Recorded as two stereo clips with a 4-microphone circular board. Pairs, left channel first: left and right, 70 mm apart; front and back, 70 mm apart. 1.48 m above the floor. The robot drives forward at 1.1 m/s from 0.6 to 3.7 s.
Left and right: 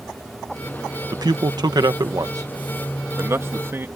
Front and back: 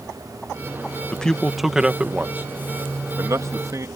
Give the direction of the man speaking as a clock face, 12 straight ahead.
2 o'clock.